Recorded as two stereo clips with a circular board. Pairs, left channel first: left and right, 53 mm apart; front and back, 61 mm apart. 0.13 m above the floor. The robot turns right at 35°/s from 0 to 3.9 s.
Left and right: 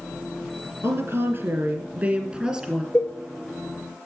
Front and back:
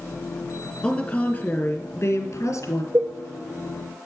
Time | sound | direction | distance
0.8 | a woman speaking | 75° right | 2.5 m
2.9 | a cowbell | 145° left | 1.2 m